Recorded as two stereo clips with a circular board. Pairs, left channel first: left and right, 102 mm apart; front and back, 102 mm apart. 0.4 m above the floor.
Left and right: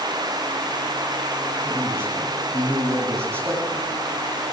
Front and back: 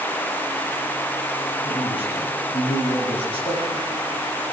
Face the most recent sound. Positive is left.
turn(degrees=-25)